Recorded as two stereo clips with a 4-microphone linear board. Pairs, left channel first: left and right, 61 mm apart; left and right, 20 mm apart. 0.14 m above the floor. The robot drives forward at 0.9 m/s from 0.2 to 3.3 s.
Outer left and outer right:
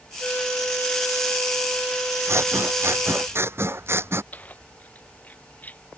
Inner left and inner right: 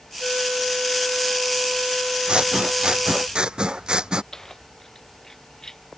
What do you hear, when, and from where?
0.2 s a flute: 30° left (ahead or behind); by 3.3 s 25° left (ahead or behind)
2.3 s scissors: 45° right (ahead or behind); by 4.2 s 40° right (ahead or behind)
4.3 s keys jangling: 25° left (ahead or behind)